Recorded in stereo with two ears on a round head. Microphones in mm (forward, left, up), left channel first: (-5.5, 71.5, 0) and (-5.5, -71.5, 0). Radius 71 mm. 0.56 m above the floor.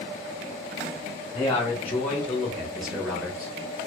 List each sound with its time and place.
1.3 s a man speaking: 15° left (ahead or behind), 1.4 m; by 3.5 s 10° right (ahead or behind), 1.2 m